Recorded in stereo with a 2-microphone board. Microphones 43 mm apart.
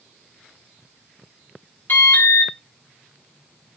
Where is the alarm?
50° left (ahead or behind), 4 m.